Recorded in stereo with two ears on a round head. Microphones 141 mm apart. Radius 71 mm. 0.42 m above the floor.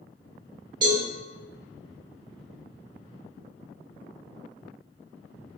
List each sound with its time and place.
0.8 s a cowbell: 30° right (ahead or behind), 1.1 m